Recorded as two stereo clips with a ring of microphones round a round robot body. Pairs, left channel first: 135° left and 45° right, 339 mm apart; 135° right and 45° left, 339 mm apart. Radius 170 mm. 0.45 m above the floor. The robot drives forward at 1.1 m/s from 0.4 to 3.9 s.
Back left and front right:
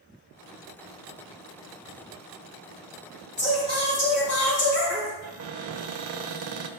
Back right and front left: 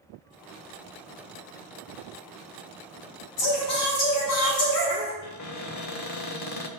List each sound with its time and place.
3.4 s singing: 165° right, 4.5 m
5.2 s a cupboard door: 95° right, 1.1 m